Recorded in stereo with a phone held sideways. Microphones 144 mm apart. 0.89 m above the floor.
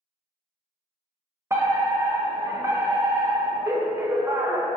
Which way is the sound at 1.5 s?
20° right (ahead or behind).